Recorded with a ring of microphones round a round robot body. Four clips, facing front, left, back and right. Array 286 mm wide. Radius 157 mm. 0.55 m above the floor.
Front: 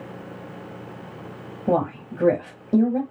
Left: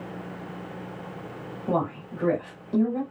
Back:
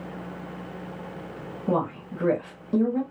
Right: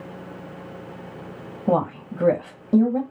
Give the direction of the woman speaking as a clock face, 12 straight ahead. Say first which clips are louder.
Right 5 dB, front 4 dB; 2 o'clock.